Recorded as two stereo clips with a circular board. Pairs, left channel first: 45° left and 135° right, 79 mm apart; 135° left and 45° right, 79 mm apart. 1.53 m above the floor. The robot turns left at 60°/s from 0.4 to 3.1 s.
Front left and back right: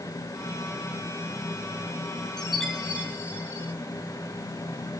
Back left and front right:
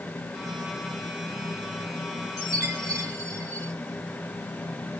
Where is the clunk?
No clunk in this recording.